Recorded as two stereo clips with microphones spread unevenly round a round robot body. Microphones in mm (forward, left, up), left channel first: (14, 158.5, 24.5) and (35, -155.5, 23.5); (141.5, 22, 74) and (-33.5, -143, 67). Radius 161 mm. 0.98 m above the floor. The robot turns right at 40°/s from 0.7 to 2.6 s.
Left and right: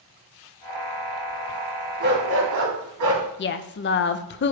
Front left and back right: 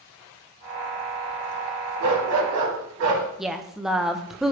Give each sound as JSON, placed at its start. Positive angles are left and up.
{"t": 2.0, "sound": "a dog barking", "azimuth_deg": -145, "distance_m": 1.9}
{"t": 3.4, "sound": "a woman speaking", "azimuth_deg": 135, "distance_m": 0.6}